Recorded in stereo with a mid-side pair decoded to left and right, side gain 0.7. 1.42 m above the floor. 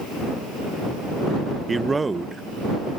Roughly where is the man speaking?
Ahead.